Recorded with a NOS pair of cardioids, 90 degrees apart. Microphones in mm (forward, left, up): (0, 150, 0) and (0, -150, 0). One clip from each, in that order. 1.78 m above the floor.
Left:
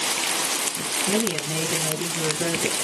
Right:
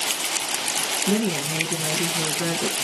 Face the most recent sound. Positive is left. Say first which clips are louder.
# even
turn(degrees=-60)